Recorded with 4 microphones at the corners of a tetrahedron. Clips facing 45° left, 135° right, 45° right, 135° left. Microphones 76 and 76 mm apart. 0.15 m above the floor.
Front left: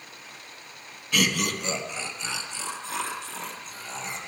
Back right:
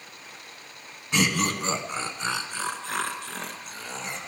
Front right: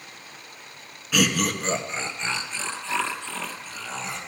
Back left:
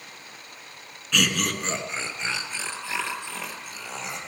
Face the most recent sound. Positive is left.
turn(degrees=-155)